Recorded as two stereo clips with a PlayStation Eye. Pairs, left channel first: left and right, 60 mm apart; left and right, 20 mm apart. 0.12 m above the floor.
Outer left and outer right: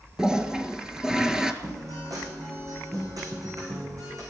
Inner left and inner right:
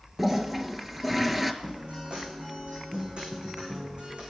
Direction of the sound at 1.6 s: 65° right (ahead or behind).